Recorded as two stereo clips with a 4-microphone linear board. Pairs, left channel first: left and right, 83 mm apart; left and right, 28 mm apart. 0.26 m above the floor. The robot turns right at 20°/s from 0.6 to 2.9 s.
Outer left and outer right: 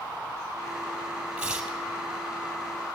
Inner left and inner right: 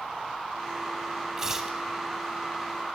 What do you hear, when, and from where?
1.4 s tearing paper: 10° right (ahead or behind), 3.5 m; by 1.8 s 5° right (ahead or behind), 3.5 m